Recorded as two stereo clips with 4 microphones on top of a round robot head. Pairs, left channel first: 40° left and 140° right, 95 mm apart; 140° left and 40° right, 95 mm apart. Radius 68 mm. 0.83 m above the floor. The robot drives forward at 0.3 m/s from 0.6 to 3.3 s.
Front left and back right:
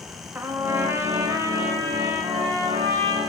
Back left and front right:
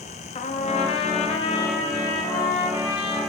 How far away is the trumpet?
About 0.5 m.